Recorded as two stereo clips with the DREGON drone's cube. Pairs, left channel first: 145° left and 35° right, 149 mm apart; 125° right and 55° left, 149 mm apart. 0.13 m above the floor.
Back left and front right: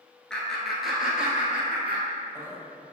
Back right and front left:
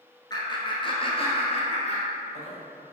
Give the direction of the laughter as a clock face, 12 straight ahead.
5 o'clock.